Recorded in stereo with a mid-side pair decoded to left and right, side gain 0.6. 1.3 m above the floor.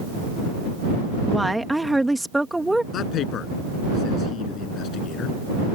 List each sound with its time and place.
1.3 s a woman speaking: 5° right
2.9 s a man speaking: 50° left